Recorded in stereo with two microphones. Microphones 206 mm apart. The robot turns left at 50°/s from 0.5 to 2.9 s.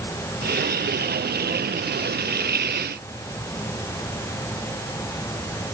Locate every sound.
Only background noise.